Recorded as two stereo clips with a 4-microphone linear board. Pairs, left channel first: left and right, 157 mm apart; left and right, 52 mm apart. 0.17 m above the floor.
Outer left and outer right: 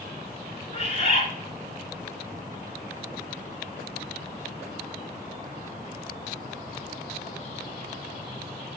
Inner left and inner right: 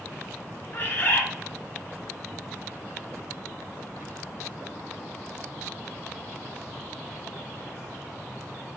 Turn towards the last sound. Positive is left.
turn(degrees=35)  # may be behind; listen again after turning